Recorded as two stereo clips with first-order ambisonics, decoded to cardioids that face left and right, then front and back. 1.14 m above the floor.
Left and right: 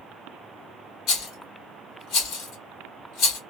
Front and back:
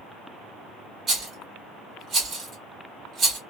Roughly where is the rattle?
Behind left.